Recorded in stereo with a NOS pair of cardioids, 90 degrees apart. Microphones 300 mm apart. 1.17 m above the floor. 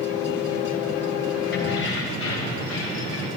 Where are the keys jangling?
35° left, 3.5 m; by 3.3 s 50° left, 4.5 m.